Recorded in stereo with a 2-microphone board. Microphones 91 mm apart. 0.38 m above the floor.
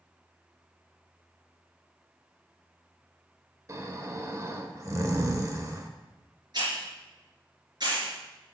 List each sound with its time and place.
3.7 s snoring: 40° right (ahead or behind), 1.0 m
6.5 s a hiss: 55° right (ahead or behind), 4 m